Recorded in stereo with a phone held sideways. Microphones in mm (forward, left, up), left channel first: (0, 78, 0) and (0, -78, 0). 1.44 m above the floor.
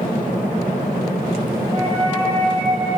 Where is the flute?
5° left (ahead or behind), 1.6 m.